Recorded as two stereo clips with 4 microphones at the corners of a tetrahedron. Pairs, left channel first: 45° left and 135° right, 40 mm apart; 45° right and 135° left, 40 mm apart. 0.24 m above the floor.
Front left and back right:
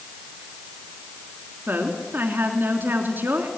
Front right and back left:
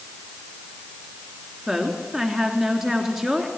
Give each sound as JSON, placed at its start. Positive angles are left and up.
{"t": 1.7, "sound": "a woman speaking", "azimuth_deg": -150, "distance_m": 3.0}